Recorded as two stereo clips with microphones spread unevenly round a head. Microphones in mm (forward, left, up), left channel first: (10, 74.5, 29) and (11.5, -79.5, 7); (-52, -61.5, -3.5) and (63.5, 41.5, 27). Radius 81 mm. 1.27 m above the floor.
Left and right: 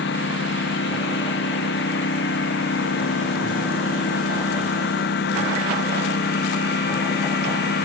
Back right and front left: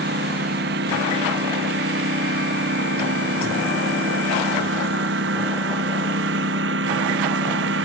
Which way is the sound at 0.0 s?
75° left.